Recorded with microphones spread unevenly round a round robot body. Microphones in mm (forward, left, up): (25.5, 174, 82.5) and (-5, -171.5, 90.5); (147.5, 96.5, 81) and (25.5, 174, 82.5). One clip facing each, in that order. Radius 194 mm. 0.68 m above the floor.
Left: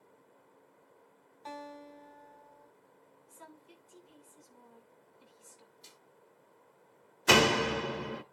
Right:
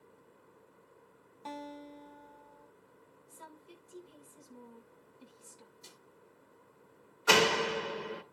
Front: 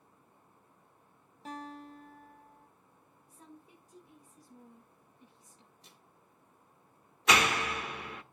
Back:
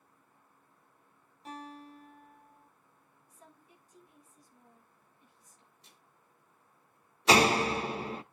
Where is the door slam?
85° left, 1.6 m.